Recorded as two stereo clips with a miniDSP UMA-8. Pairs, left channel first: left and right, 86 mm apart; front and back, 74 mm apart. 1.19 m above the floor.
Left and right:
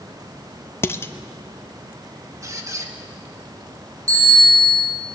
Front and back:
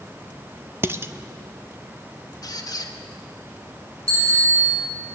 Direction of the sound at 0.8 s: 140° left.